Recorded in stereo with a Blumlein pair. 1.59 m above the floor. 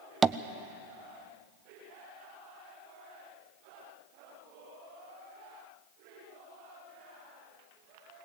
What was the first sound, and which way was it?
Tapping, 15° right.